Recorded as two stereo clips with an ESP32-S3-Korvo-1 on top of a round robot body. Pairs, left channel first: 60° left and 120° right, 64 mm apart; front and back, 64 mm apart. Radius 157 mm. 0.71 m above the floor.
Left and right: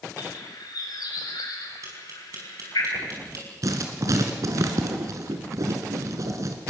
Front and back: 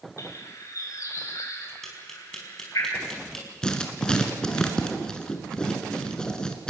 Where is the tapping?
85° right, 5.5 m.